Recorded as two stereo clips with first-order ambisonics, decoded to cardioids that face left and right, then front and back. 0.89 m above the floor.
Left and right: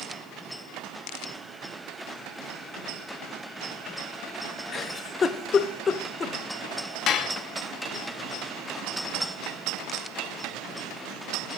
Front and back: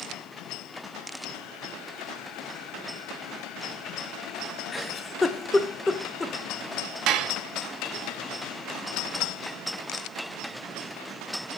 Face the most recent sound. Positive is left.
turn(degrees=140)